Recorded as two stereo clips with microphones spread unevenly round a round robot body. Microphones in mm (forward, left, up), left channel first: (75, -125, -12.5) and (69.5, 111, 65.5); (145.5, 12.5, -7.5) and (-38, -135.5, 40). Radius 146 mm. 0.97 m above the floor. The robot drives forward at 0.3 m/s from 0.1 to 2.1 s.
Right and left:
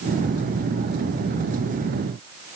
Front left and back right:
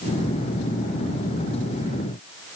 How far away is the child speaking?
I don't hear a child speaking.